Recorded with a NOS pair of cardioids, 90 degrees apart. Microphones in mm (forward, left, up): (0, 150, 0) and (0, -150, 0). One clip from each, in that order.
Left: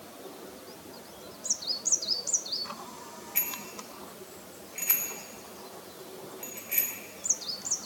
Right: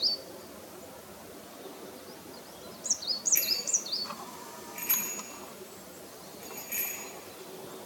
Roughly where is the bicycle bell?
Ahead.